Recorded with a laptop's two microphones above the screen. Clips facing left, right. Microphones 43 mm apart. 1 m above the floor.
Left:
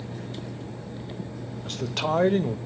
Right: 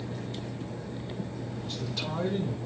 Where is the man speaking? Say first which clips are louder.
Left 10 dB; 60° left (ahead or behind), 1.0 m.